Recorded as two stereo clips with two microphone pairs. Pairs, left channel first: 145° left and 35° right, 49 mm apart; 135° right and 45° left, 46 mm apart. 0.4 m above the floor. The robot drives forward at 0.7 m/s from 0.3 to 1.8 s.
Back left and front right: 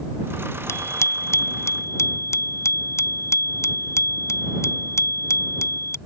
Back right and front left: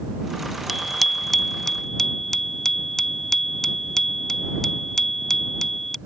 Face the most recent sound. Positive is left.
turn(degrees=145)